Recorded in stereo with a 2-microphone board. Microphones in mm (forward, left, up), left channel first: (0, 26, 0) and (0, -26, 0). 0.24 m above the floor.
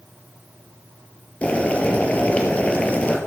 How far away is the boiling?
About 1.8 m.